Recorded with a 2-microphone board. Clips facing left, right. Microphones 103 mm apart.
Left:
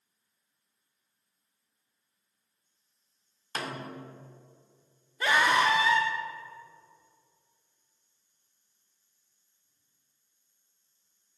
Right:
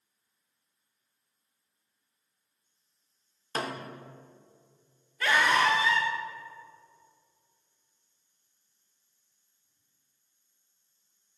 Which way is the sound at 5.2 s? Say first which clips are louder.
Even; 20° left (ahead or behind).